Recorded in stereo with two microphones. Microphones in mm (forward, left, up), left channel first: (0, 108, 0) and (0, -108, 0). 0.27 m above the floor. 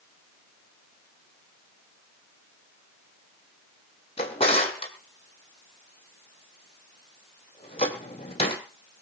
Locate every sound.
4.2 s a drawer: 30° left (ahead or behind), 2.5 m